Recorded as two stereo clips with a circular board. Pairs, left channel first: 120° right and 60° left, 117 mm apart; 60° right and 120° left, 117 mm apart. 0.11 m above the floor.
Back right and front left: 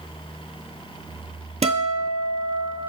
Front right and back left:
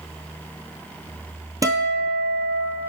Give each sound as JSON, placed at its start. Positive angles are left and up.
{"t": 1.6, "sound": "a guitar", "azimuth_deg": 60, "distance_m": 0.7}